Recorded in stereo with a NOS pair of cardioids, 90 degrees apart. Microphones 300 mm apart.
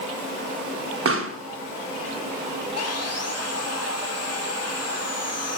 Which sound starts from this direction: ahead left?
Sawing, at 2.8 s.